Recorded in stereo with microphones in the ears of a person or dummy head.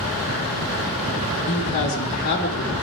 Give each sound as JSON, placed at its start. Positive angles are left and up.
{"t": 1.5, "sound": "a man speaking", "side_deg": 40, "distance_m": 2.0}